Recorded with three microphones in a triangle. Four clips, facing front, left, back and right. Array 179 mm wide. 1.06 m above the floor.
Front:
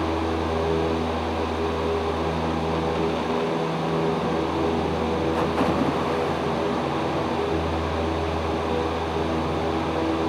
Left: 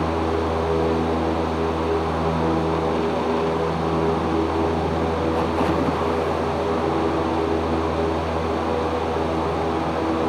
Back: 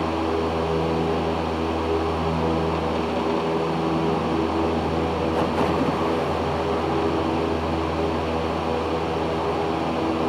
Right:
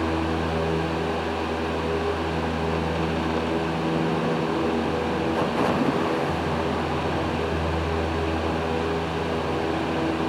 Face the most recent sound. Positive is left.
No sound to turn to.